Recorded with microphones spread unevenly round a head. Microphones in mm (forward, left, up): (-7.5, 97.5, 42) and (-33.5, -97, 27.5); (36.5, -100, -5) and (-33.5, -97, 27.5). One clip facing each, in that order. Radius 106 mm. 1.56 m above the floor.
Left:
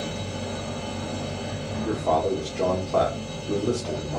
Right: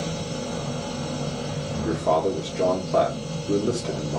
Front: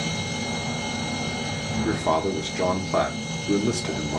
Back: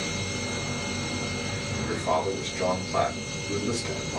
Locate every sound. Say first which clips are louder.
0.0 s a machine running: right 2 dB, front 3 dB; 45° right, 2 m
1.9 s a man speaking: right 1 dB, front 3 dB; 30° right, 1.0 m